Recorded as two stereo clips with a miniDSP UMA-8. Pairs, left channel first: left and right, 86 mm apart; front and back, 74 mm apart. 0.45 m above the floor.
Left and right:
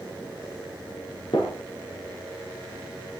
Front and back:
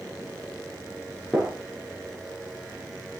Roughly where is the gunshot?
Left.